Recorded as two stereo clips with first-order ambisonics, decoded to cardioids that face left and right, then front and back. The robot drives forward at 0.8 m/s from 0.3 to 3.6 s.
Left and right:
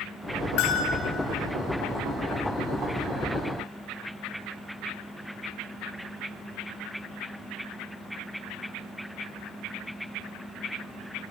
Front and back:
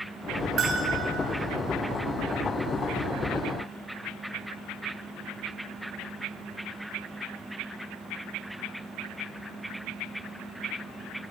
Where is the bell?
120° left, 3.5 m.